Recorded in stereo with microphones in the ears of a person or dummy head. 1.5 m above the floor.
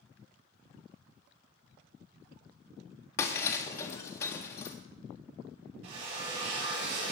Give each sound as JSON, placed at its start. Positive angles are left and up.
{"t": 3.2, "sound": "breaking glass", "side_deg": 15, "distance_m": 0.7}
{"t": 5.8, "sound": "a drill", "side_deg": -65, "distance_m": 4.0}